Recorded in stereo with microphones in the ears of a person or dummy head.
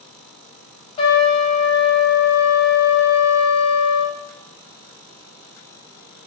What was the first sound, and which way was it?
A trumpet, 30° left (ahead or behind).